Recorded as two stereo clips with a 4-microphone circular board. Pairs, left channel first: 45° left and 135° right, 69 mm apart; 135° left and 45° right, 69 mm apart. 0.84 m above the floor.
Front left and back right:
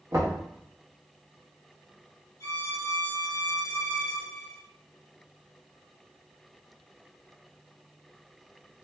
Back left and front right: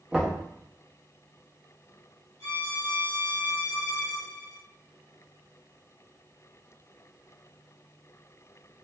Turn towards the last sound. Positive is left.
turn(degrees=80)